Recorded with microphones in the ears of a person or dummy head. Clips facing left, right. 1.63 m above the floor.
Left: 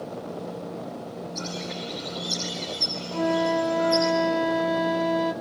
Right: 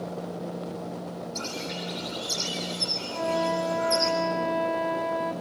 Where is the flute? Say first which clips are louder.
Left 4 dB; 50° left (ahead or behind), 2.0 m.